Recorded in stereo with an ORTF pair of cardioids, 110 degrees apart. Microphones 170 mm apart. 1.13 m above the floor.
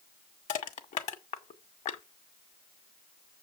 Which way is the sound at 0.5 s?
45° left.